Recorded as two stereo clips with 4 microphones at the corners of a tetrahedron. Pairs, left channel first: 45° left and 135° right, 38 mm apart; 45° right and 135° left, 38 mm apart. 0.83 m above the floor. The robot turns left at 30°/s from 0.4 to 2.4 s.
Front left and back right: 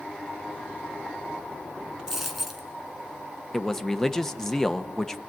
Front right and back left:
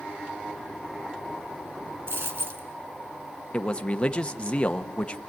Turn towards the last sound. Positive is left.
turn(degrees=-30)